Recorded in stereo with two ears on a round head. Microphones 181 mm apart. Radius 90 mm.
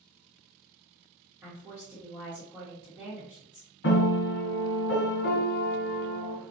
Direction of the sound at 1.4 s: 10° right (ahead or behind).